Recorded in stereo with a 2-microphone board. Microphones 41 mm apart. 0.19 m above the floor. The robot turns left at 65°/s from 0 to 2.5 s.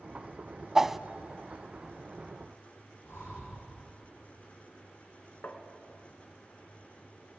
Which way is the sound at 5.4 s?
50° left (ahead or behind).